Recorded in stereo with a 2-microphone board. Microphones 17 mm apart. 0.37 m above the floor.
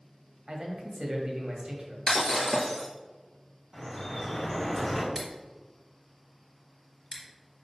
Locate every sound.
0.5 s a man speaking: 50° right (ahead or behind), 1.7 m
2.1 s breaking glass: 25° left (ahead or behind), 1.5 m
3.7 s dripping: 15° left (ahead or behind), 2.5 m
5.2 s scissors: centre (ahead or behind), 2 m